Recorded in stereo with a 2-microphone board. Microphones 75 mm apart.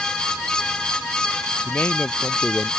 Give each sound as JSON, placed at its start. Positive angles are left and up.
{"t": 1.6, "sound": "a man speaking", "side_deg": 25}